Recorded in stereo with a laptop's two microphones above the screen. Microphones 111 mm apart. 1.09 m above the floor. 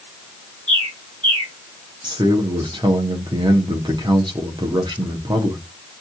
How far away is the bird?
About 1.0 m.